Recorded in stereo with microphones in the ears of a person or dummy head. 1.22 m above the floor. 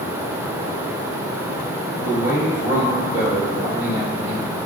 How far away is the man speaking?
About 1.2 m.